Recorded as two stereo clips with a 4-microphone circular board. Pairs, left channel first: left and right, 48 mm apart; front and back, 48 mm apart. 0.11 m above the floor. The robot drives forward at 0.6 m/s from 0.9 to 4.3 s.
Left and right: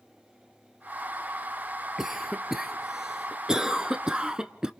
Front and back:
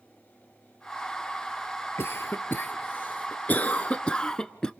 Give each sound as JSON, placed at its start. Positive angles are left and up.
{"t": 2.0, "sound": "a cough", "azimuth_deg": -10, "distance_m": 2.0}